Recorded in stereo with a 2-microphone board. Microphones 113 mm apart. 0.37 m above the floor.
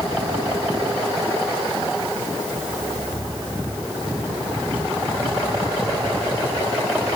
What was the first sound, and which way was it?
Only background noise.